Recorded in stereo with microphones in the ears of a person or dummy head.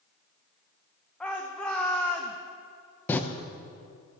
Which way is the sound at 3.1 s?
10° left (ahead or behind).